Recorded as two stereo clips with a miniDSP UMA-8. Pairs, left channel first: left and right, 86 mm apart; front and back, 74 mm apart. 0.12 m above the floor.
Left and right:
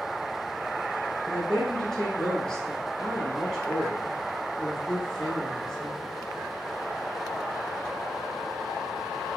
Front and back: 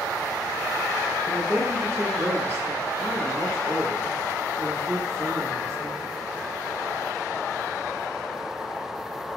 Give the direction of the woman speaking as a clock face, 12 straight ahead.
6 o'clock.